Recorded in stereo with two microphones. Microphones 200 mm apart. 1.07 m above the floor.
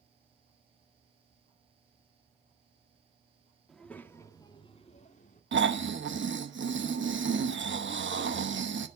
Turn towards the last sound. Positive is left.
turn(degrees=-65)  # may be behind; listen again after turning